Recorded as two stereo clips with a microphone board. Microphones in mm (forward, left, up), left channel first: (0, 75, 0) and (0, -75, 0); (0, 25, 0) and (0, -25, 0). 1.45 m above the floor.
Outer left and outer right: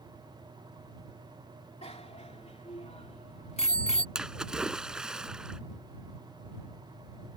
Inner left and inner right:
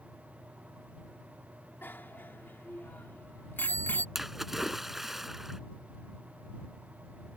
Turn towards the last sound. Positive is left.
turn(degrees=-5)  # may be behind; listen again after turning